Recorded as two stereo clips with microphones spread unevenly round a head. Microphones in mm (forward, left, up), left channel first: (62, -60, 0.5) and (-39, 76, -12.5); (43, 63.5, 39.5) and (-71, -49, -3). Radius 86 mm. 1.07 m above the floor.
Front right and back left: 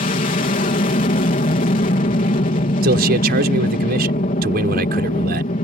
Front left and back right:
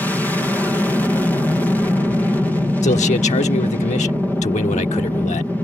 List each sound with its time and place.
0.0 s an aircraft: 50° right
2.8 s a man speaking: 95° left